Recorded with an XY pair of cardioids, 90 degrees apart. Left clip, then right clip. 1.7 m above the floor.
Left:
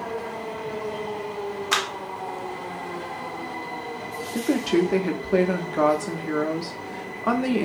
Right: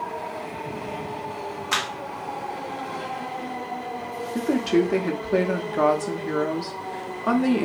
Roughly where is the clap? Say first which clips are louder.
Left 1 dB; ahead left.